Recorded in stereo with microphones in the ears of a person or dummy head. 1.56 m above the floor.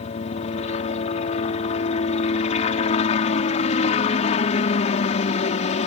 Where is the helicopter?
45° left (ahead or behind).